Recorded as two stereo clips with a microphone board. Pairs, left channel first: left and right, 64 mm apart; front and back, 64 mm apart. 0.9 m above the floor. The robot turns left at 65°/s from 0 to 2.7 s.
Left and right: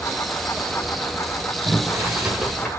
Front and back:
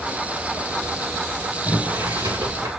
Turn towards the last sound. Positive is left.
turn(degrees=170)